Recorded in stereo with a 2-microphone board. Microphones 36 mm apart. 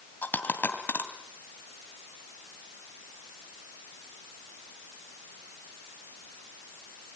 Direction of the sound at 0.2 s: 60° left (ahead or behind).